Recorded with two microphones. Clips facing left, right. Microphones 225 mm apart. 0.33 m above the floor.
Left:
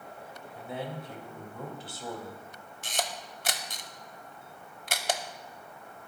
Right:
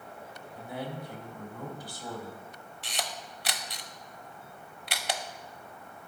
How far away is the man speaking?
About 1.5 m.